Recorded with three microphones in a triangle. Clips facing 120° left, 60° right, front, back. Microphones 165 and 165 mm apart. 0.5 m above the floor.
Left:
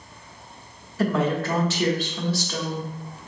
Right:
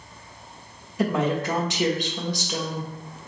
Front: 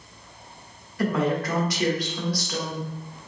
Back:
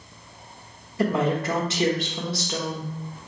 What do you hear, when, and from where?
1.0 s a woman speaking: 125° right, 0.8 m